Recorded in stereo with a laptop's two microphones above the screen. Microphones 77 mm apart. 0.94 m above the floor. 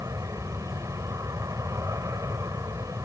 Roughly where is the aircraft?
Right.